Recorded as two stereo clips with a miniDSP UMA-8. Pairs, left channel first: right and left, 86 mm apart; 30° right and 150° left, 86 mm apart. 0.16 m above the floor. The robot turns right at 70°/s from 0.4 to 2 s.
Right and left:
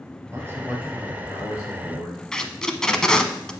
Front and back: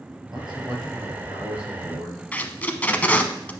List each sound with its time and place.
0.3 s a man speaking: 140° left, 3 m; by 2.2 s 105° right, 3 m
2.3 s tape being pulled: 25° right, 0.6 m